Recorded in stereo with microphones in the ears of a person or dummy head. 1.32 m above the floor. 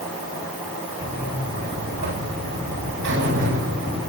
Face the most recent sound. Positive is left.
turn(degrees=-55)  # may be behind; listen again after turning